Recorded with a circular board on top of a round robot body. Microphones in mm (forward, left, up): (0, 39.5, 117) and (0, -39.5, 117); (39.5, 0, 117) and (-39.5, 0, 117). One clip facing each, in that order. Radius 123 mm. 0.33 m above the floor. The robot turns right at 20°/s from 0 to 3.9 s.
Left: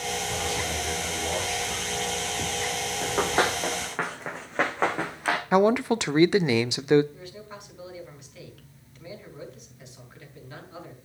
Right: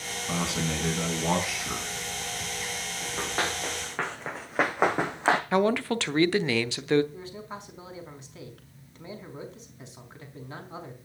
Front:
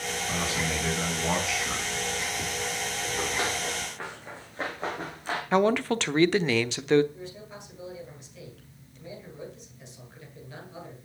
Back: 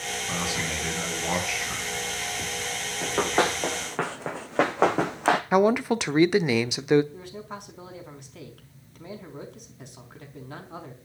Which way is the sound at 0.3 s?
105° right.